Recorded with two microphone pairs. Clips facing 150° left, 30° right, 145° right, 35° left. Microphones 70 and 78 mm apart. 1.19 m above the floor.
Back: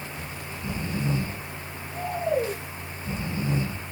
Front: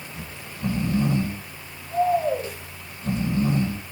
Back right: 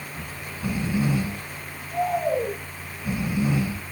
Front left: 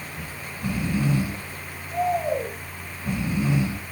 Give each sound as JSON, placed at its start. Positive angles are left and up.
{"t": 0.1, "sound": "snoring", "azimuth_deg": -60, "distance_m": 9.0}